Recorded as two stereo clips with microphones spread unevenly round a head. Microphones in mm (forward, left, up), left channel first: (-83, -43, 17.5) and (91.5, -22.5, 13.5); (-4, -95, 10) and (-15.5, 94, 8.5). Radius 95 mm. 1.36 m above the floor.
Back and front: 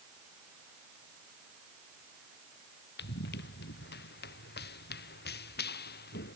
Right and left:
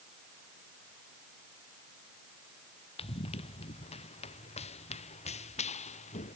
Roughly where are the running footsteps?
Behind right.